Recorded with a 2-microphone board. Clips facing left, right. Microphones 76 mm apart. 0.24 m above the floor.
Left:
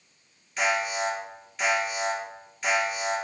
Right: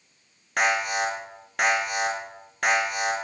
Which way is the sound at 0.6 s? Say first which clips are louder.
Right 2 dB; 65° right (ahead or behind).